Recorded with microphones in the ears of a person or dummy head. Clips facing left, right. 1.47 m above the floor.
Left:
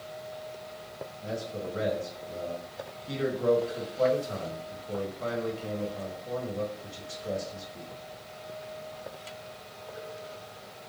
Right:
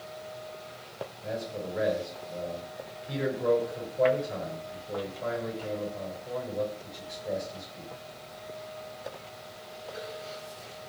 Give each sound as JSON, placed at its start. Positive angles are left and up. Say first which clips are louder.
{"t": 1.2, "sound": "a man speaking", "louder": "even", "side_deg": 80, "distance_m": 1.8}